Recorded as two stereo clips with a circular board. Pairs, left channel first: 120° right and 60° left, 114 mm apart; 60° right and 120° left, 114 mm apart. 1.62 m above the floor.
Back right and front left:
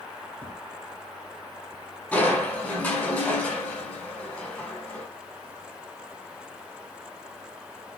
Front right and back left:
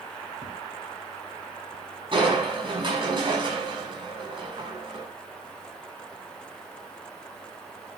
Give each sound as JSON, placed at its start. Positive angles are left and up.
{"t": 0.4, "sound": "a thud", "azimuth_deg": 100, "distance_m": 3.5}
{"t": 2.1, "sound": "crushing", "azimuth_deg": 165, "distance_m": 7.5}